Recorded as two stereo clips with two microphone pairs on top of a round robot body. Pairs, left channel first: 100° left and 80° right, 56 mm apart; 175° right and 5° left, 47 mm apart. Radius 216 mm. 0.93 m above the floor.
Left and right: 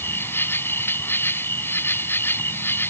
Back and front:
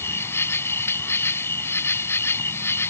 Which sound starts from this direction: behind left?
An insect, at 0.0 s.